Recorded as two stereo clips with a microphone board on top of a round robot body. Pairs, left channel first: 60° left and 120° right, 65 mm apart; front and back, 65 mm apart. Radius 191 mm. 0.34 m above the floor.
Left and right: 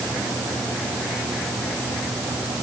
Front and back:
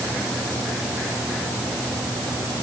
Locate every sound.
Only background noise.